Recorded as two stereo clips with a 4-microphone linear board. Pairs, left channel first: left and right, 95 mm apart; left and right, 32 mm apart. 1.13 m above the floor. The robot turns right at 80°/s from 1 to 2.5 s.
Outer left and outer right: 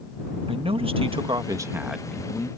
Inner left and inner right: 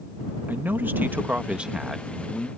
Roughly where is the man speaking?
Right.